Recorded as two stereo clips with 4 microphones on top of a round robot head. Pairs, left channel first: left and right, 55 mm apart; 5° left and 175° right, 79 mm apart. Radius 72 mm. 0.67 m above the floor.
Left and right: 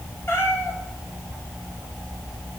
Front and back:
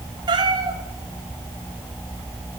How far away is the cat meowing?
About 1.5 m.